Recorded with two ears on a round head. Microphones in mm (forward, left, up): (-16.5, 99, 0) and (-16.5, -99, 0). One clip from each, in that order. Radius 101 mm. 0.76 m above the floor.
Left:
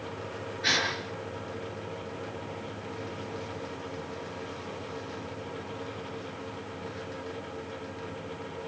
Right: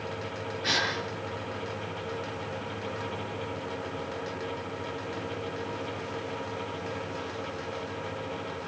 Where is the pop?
No pop in this recording.